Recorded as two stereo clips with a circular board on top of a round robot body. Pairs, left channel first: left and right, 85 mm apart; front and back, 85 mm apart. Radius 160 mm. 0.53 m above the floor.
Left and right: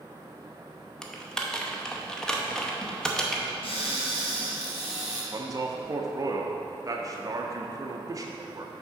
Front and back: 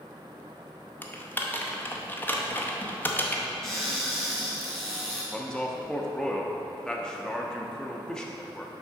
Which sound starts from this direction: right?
A man speaking, at 5.3 s.